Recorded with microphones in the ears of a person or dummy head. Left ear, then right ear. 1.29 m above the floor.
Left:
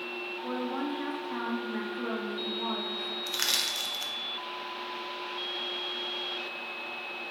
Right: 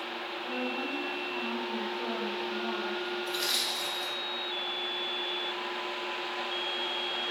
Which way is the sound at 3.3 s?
55° left (ahead or behind).